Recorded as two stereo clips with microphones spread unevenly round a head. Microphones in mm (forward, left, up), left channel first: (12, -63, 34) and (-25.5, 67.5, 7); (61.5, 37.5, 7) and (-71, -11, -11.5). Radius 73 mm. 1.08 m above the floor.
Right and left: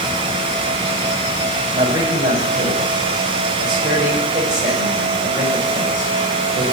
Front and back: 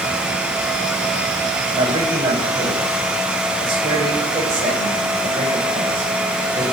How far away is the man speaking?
About 5.5 m.